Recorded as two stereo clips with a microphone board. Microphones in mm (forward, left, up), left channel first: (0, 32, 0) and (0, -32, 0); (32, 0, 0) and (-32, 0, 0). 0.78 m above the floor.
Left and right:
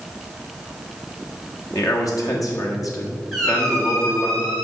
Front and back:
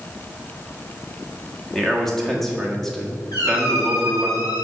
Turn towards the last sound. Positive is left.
turn(degrees=0)